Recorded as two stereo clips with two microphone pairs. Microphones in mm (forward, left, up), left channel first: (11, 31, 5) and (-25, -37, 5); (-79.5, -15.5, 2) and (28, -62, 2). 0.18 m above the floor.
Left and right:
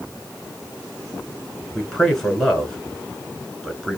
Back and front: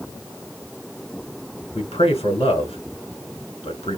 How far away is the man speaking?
About 2.5 m.